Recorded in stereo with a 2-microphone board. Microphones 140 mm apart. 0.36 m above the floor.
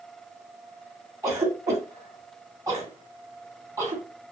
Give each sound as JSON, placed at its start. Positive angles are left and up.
{"t": 1.2, "sound": "a cough", "side_deg": -25, "distance_m": 2.5}